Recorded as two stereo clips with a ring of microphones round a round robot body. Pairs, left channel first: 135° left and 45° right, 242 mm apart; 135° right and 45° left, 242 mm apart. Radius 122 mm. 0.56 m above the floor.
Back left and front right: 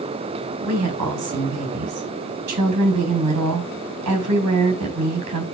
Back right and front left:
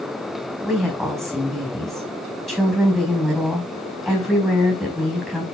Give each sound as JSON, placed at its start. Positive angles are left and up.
{"t": 0.6, "sound": "a woman speaking", "azimuth_deg": -45, "distance_m": 4.5}